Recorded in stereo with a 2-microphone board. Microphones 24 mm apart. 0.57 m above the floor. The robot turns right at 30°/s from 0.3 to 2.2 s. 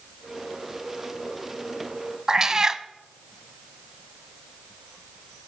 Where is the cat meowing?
25° right (ahead or behind), 0.6 m.